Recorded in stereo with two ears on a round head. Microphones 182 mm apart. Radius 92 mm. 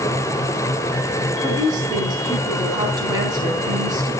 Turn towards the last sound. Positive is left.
turn(degrees=-20)  # may be behind; listen again after turning